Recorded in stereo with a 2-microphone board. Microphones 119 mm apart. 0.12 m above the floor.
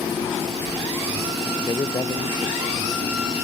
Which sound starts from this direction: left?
A man speaking, at 1.7 s.